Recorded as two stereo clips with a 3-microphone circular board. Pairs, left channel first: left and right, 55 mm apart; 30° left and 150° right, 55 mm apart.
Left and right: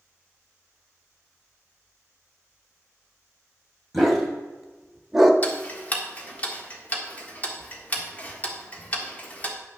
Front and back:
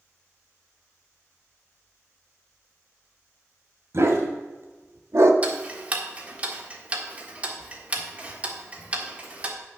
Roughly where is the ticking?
Behind left.